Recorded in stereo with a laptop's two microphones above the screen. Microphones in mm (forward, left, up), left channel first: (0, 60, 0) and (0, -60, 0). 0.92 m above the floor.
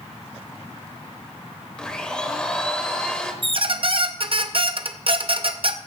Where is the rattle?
I don't hear a rattle.